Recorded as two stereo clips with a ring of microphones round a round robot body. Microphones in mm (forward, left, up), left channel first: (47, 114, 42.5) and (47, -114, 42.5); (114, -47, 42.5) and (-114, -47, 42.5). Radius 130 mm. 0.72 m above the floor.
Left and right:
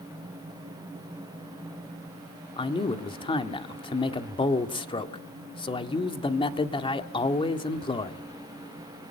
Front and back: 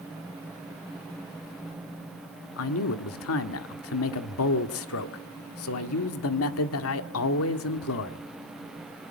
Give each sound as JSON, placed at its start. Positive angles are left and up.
{"t": 2.6, "sound": "a man speaking", "azimuth_deg": 20, "distance_m": 1.7}